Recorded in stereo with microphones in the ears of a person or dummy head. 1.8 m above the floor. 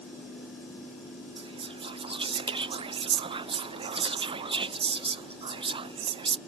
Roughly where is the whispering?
Right.